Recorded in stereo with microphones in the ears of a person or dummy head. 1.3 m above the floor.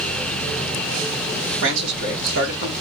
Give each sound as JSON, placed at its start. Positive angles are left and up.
{"t": 1.6, "sound": "a man speaking", "side_deg": -70, "distance_m": 2.0}